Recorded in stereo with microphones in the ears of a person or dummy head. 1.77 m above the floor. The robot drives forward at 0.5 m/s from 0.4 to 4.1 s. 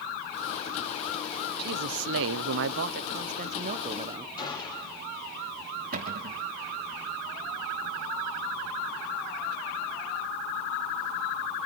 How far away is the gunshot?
About 4 m.